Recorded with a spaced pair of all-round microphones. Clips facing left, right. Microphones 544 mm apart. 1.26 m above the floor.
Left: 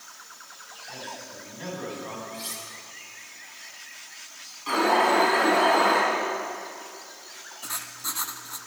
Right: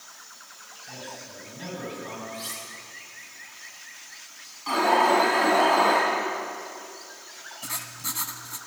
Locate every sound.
0.9 s a man speaking: 60° right (ahead or behind), 9.5 m
2.3 s cutlery clinking: 20° right (ahead or behind), 5 m
4.7 s an alarm: 20° right (ahead or behind), 8 m
7.6 s writing: 50° right (ahead or behind), 1.6 m